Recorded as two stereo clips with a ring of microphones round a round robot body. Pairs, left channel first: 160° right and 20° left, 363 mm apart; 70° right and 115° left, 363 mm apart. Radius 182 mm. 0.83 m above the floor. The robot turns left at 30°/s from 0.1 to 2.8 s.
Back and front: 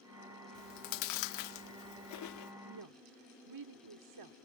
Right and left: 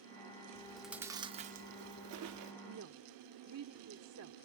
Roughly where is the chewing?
Behind right.